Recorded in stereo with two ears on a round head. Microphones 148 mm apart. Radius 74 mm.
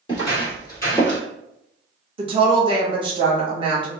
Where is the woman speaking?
30° right (ahead or behind), 0.9 m.